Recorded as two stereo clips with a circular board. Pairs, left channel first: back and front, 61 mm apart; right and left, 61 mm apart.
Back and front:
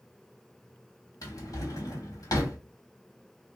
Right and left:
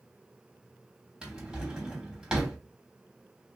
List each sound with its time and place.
1.2 s a drawer: 165° left, 1.0 m